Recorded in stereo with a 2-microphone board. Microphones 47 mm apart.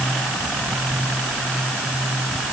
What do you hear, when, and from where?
Only background noise.